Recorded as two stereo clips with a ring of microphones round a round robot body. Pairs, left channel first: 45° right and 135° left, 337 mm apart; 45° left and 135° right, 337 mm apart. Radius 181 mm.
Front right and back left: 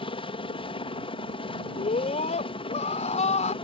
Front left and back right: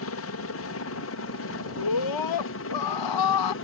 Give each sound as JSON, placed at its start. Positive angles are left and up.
{"t": 0.0, "sound": "a helicopter", "azimuth_deg": 25}
{"t": 1.8, "sound": "a scream", "azimuth_deg": 25}